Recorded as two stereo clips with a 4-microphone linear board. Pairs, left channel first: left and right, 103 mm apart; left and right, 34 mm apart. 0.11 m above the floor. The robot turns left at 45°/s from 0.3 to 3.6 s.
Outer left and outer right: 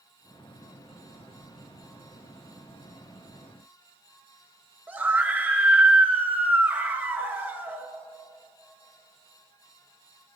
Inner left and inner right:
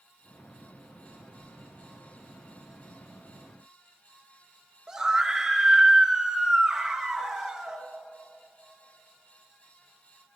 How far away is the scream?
About 1.9 m.